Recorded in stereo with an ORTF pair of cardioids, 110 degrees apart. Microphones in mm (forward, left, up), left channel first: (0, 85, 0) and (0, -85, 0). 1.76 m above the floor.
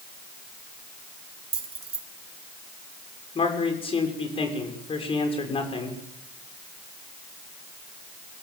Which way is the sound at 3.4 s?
35° left.